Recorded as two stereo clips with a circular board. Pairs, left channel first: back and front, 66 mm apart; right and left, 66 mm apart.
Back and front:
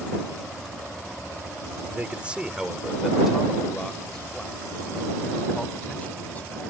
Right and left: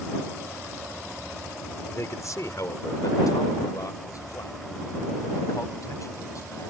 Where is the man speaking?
60° right; by 6.7 s 115° right.